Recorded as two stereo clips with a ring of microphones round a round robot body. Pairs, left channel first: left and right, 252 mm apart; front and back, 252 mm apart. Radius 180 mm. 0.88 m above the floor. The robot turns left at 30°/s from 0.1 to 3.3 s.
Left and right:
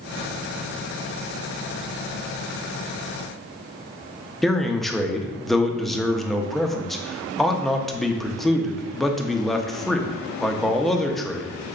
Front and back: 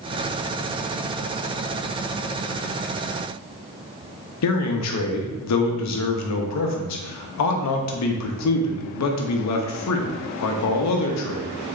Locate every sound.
4.4 s a man speaking: straight ahead, 0.8 m